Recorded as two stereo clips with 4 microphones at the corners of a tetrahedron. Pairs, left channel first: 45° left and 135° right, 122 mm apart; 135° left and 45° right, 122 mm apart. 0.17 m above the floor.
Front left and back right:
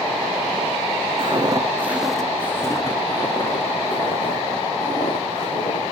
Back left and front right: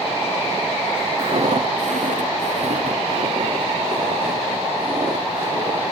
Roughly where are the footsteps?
Right.